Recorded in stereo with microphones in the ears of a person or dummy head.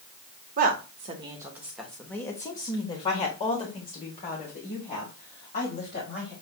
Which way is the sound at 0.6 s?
45° right (ahead or behind).